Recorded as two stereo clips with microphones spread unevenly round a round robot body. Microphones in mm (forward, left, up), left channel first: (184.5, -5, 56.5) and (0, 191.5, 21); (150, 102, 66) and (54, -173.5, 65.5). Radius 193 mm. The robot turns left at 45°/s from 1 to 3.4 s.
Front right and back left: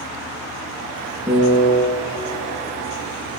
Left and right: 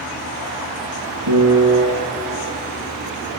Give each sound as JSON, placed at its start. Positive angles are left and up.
{"t": 1.3, "sound": "a piano", "azimuth_deg": -145, "distance_m": 1.8}